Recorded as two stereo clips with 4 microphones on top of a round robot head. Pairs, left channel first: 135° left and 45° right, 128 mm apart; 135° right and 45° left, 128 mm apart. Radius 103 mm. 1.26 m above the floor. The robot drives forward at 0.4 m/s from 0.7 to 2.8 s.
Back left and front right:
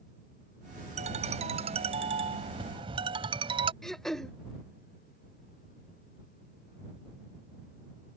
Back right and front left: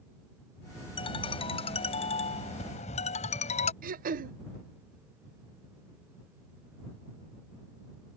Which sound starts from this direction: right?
A ringtone, at 1.0 s.